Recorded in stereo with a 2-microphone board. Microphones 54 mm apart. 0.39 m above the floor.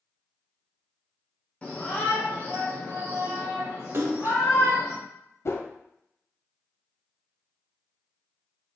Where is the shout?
25° left (ahead or behind), 0.9 m; by 4.9 s 70° left (ahead or behind), 2.5 m.